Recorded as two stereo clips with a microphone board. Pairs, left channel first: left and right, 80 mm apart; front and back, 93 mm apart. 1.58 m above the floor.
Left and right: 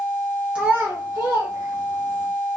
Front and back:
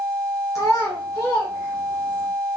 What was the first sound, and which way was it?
A child speaking, 20° right.